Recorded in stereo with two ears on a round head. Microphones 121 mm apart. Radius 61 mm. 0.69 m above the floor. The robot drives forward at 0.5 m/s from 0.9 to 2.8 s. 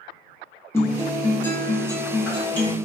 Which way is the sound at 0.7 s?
15° left (ahead or behind).